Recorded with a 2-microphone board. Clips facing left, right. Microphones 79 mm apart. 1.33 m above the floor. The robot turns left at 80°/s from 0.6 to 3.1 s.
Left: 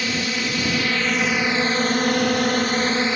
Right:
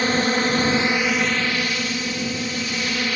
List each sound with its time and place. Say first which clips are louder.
0.0 s a drone: right 5 dB; 130° right; by 3.2 s 30° left